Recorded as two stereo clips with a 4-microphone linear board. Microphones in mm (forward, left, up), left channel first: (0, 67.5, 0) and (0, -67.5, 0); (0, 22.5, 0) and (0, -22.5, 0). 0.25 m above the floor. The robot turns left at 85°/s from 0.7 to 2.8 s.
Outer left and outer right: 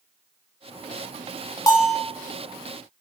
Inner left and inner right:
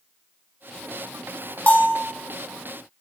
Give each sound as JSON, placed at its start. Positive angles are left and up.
{"t": 1.7, "sound": "a bell", "azimuth_deg": 150, "distance_m": 0.6}